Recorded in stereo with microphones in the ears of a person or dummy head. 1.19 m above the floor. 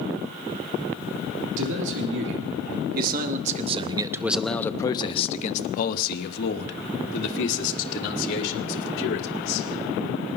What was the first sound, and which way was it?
A man speaking, 70° right (ahead or behind).